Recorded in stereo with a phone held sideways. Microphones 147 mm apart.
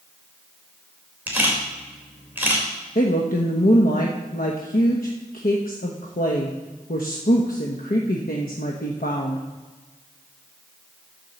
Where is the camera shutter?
15° right (ahead or behind), 3 m.